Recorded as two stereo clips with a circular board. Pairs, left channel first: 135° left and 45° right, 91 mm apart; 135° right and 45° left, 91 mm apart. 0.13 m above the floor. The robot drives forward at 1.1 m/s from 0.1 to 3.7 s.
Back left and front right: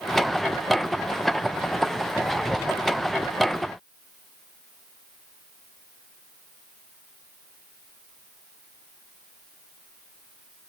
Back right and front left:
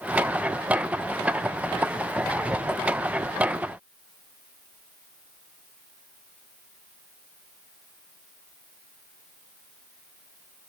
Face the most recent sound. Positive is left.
No sound to turn to.